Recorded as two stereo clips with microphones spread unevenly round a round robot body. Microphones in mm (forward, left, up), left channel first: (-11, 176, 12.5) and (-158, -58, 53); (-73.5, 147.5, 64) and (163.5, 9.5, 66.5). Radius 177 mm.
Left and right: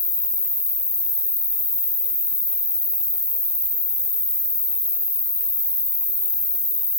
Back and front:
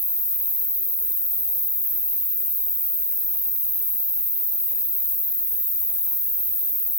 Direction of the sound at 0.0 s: 125° left.